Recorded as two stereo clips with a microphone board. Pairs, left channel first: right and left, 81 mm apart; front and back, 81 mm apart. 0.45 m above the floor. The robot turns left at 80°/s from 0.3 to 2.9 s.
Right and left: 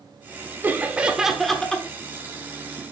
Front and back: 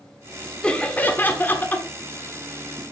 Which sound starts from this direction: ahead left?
Laughter, at 0.6 s.